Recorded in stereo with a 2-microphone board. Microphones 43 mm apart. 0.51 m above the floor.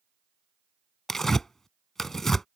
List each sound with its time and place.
1.1 s tearing paper: 10° left (ahead or behind)